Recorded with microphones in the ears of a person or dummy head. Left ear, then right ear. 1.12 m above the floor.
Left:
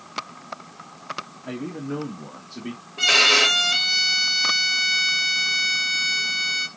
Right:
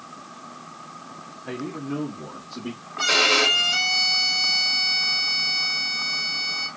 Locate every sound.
1.4 s a man speaking: 5° left (ahead or behind), 1.4 m; by 2.8 s 50° left (ahead or behind), 2.5 m
3.0 s a violin: 65° left (ahead or behind), 1.7 m